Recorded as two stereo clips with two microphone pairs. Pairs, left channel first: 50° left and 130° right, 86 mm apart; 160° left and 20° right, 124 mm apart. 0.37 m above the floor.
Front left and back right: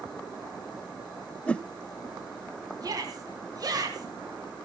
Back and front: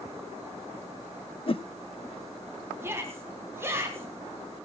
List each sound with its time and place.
1.5 s a whoosh: 125° left, 0.6 m
2.8 s a shout: 90° right, 3 m